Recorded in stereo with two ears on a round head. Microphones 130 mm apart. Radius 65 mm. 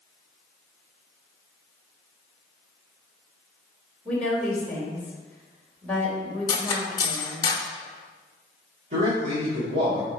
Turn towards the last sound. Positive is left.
turn(degrees=-50)  # may be behind; listen again after turning